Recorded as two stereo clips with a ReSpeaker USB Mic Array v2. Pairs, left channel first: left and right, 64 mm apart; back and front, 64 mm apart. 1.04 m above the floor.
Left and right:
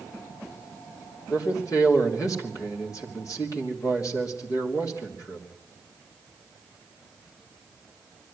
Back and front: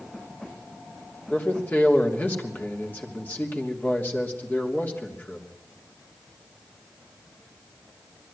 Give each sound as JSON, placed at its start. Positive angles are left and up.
{"t": 1.3, "sound": "a man speaking", "azimuth_deg": 120, "distance_m": 3.0}